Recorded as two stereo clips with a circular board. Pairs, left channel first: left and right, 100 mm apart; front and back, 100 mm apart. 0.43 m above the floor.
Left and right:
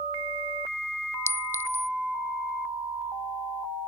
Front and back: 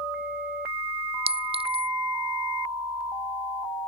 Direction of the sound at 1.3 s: 155° left.